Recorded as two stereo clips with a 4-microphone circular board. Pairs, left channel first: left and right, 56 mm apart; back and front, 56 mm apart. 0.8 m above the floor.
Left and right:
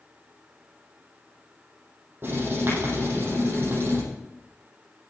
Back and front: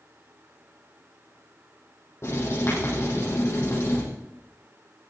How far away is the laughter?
I don't hear laughter.